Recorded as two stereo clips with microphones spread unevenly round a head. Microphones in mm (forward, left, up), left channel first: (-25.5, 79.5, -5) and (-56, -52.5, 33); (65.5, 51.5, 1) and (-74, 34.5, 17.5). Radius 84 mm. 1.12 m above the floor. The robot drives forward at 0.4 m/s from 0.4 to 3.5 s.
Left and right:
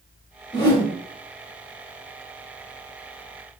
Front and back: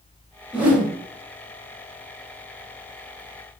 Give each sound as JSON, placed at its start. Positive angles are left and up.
{"t": 0.5, "sound": "a whoosh", "azimuth_deg": 130, "distance_m": 0.9}